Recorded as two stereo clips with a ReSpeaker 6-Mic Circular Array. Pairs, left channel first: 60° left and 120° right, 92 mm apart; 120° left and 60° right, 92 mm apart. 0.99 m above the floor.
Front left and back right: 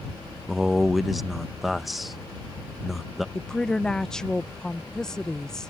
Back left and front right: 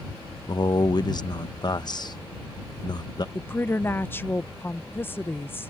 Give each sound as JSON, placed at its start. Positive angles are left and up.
{"t": 0.5, "sound": "a man speaking", "azimuth_deg": 150}
{"t": 3.4, "sound": "a woman speaking", "azimuth_deg": 135}